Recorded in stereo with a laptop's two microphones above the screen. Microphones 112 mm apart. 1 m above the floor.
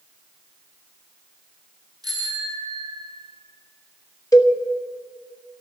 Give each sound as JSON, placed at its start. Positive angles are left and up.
{"t": 2.0, "sound": "a bicycle bell", "side_deg": -35, "distance_m": 4.0}
{"t": 4.3, "sound": "a cowbell", "side_deg": 30, "distance_m": 1.1}